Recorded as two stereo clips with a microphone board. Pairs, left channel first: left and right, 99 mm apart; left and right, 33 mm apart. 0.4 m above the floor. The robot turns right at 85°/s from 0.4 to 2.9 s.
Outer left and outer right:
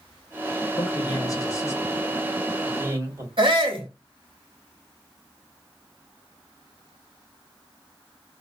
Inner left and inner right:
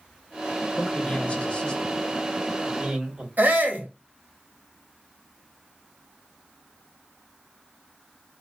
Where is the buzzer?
I don't hear a buzzer.